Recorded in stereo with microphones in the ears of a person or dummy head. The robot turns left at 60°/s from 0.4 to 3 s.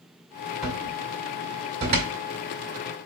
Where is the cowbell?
No cowbell in this recording.